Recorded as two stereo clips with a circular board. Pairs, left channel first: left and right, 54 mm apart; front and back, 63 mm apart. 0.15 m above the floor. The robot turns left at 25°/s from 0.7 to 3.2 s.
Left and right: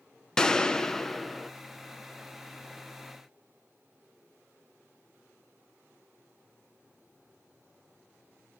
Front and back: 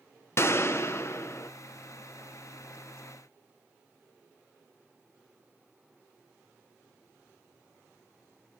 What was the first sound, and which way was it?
A gunshot, 20° left.